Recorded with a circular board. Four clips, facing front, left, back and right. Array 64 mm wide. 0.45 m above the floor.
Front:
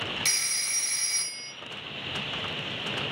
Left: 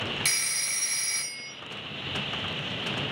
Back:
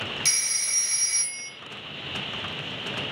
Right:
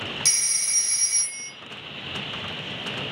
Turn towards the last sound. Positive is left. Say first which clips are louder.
# left 2 dB, even
turn(degrees=70)